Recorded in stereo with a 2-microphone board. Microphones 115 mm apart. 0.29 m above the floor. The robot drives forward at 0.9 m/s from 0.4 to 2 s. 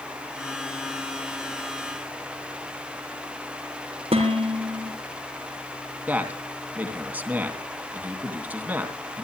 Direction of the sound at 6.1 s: 15° right (ahead or behind).